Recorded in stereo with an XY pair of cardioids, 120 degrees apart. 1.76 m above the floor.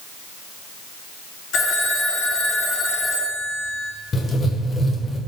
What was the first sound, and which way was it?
A phone ringing, 65° left.